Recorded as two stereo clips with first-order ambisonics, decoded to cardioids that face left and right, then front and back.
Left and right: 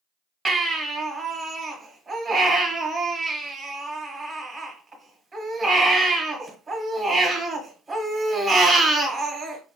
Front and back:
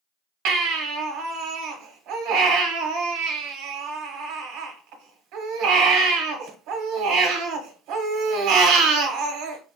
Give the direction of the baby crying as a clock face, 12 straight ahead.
6 o'clock.